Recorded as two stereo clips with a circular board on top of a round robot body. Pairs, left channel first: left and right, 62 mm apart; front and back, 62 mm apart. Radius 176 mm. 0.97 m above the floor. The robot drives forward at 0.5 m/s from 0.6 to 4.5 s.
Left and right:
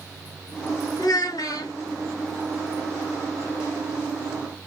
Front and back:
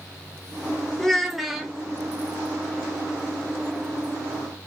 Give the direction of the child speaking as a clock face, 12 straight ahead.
9 o'clock.